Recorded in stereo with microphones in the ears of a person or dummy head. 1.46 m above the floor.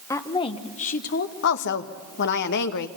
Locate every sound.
0.1 s a woman speaking: 15° left (ahead or behind), 1.4 m; by 1.3 s 60° left (ahead or behind), 1.6 m
1.4 s a woman speaking: 60° left (ahead or behind), 1.4 m